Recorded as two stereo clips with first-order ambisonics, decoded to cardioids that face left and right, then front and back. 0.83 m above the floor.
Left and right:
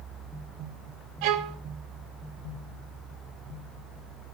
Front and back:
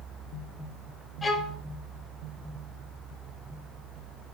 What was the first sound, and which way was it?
A violin, 80° right.